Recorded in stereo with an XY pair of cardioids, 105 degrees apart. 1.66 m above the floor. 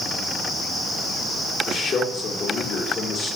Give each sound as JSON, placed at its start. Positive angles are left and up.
{"t": 1.7, "sound": "a man speaking", "azimuth_deg": 65, "distance_m": 4.0}